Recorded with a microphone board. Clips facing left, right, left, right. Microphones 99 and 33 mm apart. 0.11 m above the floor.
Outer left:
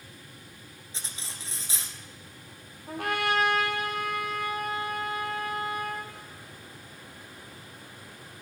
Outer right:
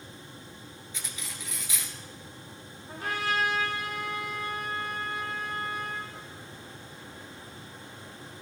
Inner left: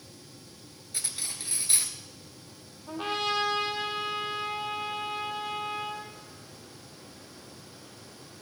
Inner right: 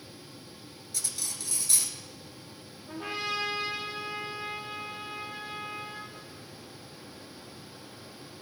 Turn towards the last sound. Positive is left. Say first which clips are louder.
# outer left 3 dB, inner left 4 dB
turn(degrees=60)  # may be behind; listen again after turning